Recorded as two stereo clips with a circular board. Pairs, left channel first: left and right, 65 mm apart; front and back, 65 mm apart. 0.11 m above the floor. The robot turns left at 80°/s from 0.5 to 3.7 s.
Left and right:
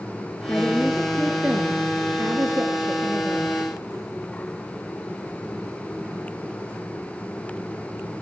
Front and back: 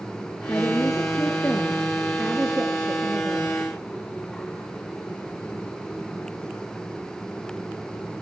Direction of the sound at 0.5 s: 35° left.